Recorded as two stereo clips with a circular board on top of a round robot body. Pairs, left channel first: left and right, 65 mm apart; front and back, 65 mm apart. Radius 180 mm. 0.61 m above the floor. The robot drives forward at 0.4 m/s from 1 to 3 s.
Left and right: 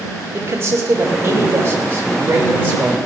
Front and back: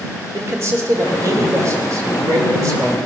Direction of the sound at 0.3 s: 140° right.